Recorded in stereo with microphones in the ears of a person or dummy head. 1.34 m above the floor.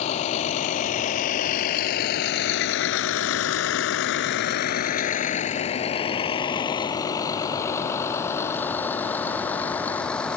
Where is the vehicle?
35° left (ahead or behind); by 10.4 s 10° left (ahead or behind).